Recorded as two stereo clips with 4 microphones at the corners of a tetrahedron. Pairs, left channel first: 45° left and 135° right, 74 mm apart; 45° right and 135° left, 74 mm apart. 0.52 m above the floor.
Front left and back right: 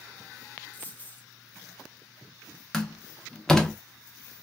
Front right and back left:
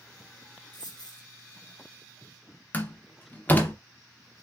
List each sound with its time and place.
0.7 s a dropped coin: 20° right, 0.8 m
2.7 s a door slam: 25° right, 0.5 m